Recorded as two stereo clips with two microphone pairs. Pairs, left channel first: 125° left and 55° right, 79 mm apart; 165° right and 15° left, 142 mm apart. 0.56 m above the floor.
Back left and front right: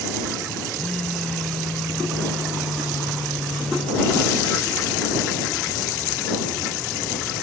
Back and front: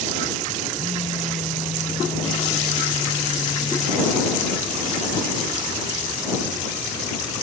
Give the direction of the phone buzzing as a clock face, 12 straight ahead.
5 o'clock.